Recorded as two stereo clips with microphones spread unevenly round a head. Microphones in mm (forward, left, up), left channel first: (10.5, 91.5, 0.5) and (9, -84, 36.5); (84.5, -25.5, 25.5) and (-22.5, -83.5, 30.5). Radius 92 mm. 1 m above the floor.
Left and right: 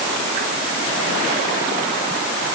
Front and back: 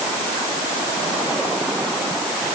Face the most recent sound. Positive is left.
No sound to turn to.